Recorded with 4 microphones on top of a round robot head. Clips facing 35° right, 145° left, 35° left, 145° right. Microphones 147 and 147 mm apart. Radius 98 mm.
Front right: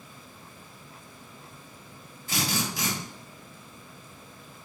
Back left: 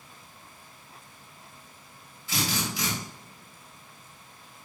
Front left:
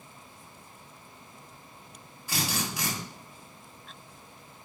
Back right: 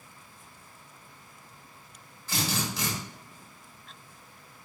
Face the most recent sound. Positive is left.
turn(degrees=-40)